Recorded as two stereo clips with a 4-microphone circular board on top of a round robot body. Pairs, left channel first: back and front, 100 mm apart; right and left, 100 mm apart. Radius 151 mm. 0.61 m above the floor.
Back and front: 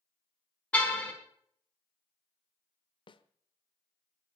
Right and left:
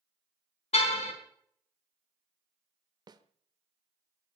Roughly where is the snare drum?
Behind left.